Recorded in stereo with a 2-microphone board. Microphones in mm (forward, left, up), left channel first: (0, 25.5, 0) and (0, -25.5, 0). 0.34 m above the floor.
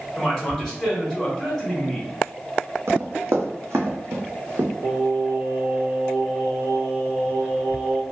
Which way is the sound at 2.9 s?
75° right (ahead or behind).